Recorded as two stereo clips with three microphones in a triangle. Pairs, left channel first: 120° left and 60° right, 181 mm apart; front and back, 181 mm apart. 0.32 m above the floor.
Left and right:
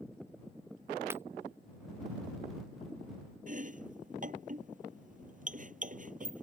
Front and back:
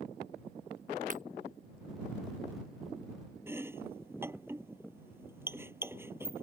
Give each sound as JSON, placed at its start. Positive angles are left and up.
{"t": 1.1, "sound": "breaking glass", "azimuth_deg": -135}
{"t": 3.5, "sound": "chopping", "azimuth_deg": -105}